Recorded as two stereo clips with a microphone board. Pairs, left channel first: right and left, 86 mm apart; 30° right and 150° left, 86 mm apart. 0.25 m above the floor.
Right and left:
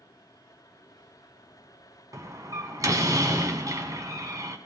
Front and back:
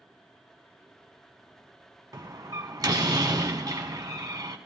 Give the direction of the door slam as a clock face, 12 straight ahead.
8 o'clock.